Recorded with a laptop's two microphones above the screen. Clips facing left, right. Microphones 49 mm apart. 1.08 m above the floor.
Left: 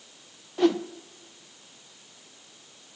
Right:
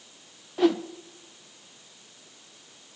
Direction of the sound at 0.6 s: 5° right (ahead or behind).